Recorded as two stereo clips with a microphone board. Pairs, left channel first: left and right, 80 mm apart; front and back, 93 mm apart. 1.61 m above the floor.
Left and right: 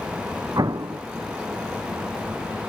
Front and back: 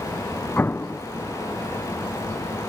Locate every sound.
0.6 s an explosion: 65° right